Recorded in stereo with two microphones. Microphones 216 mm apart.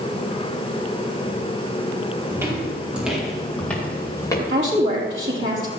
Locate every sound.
2.3 s footsteps: 15° right (ahead or behind), 5 m; by 4.4 s 15° left (ahead or behind), 4 m
4.5 s a woman speaking: 65° right (ahead or behind), 4.5 m